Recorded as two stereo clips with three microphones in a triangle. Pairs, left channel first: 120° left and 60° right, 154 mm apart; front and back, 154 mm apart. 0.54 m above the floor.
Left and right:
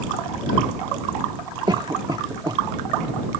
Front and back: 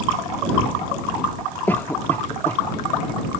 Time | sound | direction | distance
1.7 | a cough | 60° right | ?